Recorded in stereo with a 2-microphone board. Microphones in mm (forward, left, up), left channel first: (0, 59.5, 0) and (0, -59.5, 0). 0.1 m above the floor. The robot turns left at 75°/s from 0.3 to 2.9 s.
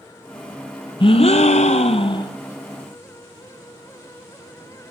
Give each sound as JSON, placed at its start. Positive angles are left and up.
{"t": 1.0, "sound": "a gasp", "azimuth_deg": 135, "distance_m": 0.5}